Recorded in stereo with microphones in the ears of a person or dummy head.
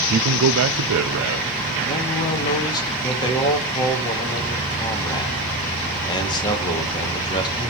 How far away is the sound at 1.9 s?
About 2 m.